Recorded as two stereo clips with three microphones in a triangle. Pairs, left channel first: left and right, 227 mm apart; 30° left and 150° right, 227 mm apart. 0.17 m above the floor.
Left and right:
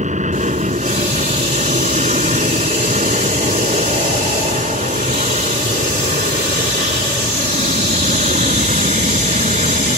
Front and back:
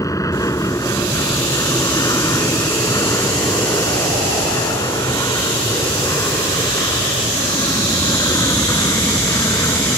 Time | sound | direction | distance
0.0 | an aircraft | 40° right | ?